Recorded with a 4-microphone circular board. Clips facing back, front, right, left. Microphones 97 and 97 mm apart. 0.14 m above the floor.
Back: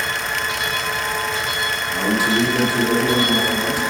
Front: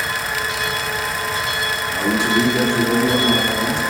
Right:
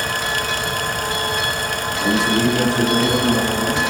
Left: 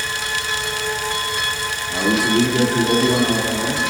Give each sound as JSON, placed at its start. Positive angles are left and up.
{"t": 1.9, "sound": "a man speaking", "azimuth_deg": 100, "distance_m": 1.8}